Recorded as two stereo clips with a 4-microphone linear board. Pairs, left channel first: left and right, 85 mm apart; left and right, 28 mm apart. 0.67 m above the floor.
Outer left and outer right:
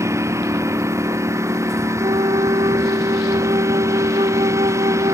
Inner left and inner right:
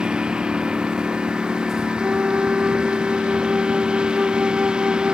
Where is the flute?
85° right.